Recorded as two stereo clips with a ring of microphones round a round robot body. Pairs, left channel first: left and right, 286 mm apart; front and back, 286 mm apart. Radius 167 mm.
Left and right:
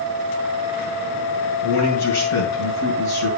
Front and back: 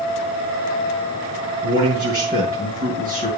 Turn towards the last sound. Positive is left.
turn(degrees=115)